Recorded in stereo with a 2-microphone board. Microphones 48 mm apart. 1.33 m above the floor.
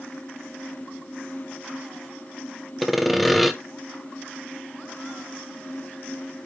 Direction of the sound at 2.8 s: Centre (ahead or behind).